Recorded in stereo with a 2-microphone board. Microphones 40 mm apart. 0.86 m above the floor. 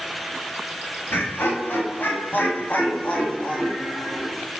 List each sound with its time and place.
1.1 s laughter: 65° left (ahead or behind), 1.8 m; by 4.3 s 15° left (ahead or behind), 1.9 m